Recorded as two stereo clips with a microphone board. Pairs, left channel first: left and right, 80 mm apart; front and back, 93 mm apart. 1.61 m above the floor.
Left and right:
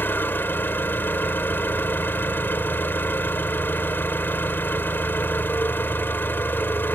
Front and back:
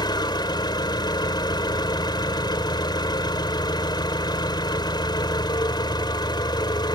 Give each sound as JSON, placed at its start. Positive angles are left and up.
{"t": 0.0, "sound": "an engine running", "azimuth_deg": 30}